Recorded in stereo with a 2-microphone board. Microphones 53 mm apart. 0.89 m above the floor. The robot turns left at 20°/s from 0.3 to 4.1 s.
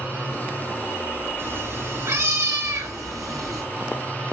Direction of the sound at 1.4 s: 50° right.